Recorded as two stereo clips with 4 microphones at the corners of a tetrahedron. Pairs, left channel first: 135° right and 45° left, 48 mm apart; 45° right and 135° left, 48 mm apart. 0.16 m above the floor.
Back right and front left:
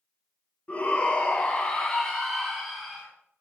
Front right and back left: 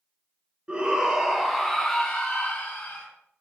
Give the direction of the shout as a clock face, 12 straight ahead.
6 o'clock.